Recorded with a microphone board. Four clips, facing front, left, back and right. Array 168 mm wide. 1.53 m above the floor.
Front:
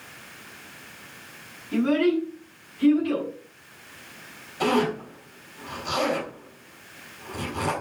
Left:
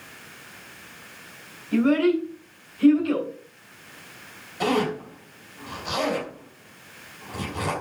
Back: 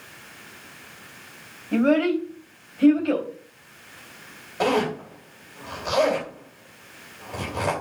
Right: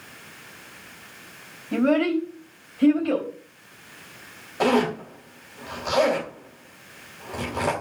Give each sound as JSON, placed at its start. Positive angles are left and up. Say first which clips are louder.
{"t": 1.7, "sound": "a child speaking", "louder": "left 1 dB, back 2 dB", "azimuth_deg": -140, "distance_m": 4.5}
{"t": 4.6, "sound": "a zipper", "louder": "right 3 dB, back 1 dB", "azimuth_deg": -135, "distance_m": 4.5}